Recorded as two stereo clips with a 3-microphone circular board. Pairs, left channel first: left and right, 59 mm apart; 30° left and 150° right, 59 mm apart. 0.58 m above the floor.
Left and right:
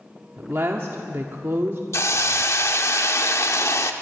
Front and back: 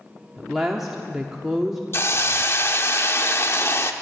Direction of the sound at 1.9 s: 65° left.